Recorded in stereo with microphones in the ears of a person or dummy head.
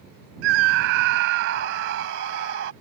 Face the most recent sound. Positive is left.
turn(degrees=-70)  # may be behind; listen again after turning